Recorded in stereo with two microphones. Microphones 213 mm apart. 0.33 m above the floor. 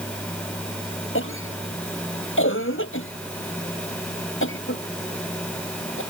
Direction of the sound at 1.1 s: 65° left (ahead or behind).